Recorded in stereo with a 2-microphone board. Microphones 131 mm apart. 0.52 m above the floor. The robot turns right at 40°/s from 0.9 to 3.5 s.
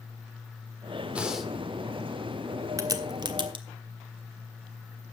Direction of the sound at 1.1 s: 10° right (ahead or behind).